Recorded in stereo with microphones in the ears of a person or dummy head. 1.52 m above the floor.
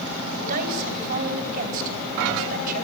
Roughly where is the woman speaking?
Right.